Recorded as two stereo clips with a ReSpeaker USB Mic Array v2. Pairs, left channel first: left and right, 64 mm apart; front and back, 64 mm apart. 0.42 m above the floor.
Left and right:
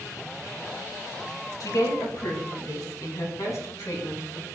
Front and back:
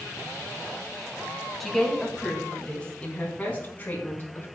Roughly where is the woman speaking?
Left.